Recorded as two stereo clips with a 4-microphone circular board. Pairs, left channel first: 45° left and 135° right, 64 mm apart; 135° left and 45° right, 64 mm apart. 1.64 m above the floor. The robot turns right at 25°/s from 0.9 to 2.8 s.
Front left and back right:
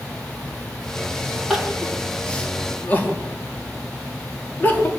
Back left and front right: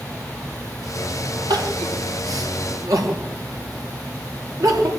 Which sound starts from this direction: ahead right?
Crying, at 1.5 s.